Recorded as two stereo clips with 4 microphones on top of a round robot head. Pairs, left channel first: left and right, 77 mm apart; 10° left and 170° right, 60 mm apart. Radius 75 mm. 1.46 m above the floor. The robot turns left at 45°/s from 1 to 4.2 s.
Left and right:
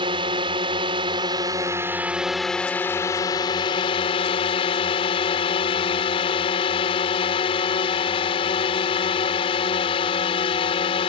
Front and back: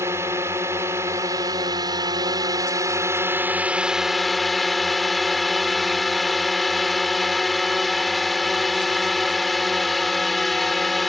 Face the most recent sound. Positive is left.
turn(degrees=100)